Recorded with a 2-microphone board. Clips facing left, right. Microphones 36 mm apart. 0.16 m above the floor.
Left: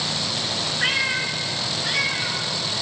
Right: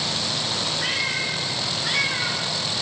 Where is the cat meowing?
35° left (ahead or behind), 1.0 m; by 2.5 s 15° right (ahead or behind), 1.3 m.